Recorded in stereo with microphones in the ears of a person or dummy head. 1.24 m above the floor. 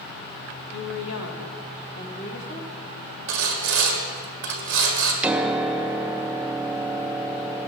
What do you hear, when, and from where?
0.7 s a woman speaking: 60° left (ahead or behind), 1.7 m; by 2.7 s 55° left (ahead or behind), 2 m
3.3 s sawing: 55° right (ahead or behind), 1.5 m
5.2 s a piano: 10° right (ahead or behind), 0.5 m